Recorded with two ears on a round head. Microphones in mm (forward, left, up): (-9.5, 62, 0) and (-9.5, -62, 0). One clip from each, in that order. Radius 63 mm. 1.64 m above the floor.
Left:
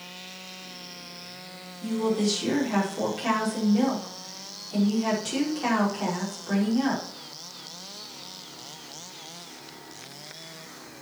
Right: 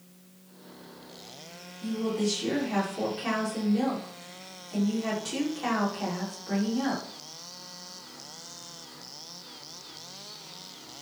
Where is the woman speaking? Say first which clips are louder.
Left 4 dB; centre (ahead or behind), 5.5 m.